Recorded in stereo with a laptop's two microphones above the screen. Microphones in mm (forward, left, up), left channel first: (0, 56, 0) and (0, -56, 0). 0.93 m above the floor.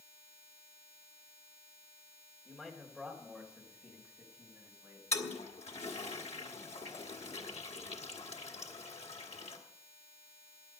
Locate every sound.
2.5 s a man speaking: 15° left (ahead or behind), 3 m; by 5.0 s 10° right (ahead or behind), 5 m
5.1 s a toilet flushing: 70° left (ahead or behind), 1.6 m